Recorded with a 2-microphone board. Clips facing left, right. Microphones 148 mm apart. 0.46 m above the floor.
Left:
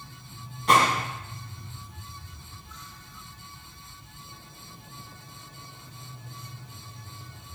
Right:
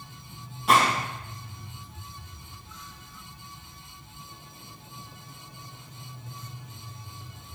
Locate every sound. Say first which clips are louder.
0.7 s a gunshot: even; 5° right (ahead or behind), 3 m